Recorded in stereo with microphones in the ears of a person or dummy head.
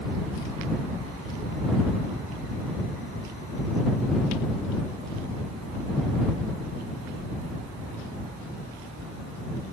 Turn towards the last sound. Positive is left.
No sound to turn to.